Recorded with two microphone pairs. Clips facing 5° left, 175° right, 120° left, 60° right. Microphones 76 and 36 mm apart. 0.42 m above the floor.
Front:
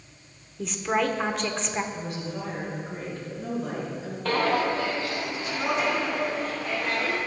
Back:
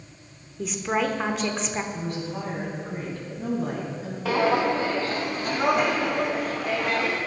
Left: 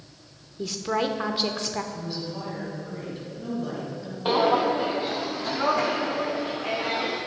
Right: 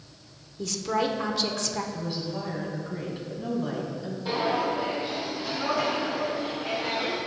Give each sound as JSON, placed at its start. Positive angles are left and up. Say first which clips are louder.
{"t": 0.6, "sound": "a woman speaking", "louder": "even, left 1 dB", "azimuth_deg": 100, "distance_m": 0.8}
{"t": 1.9, "sound": "a woman speaking", "louder": "back 2 dB, right 1 dB", "azimuth_deg": -135, "distance_m": 3.5}
{"t": 4.2, "sound": "footsteps", "louder": "back 2 dB, left 5 dB", "azimuth_deg": 105, "distance_m": 0.8}